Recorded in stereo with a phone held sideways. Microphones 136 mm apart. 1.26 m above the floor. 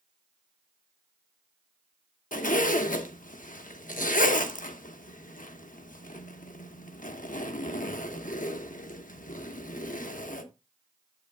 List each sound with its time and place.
2.3 s a zipper: 75° left (ahead or behind), 0.9 m